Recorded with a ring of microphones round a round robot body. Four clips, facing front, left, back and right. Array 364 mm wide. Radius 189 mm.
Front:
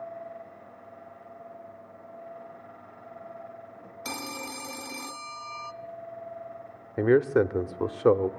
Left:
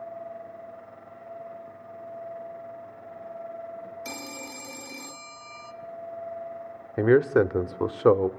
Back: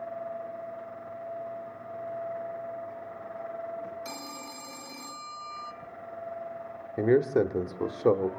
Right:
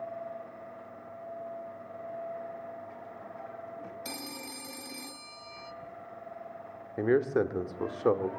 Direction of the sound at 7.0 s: 75° left.